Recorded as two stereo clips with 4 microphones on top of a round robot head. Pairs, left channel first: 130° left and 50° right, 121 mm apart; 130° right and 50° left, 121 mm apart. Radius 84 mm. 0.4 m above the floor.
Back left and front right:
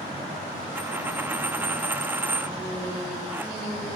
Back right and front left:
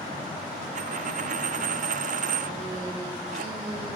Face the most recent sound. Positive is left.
turn(degrees=25)